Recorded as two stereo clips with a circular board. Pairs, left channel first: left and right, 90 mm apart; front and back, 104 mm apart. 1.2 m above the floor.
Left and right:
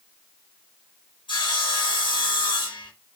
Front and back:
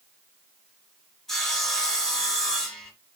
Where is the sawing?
85° left, 0.8 m.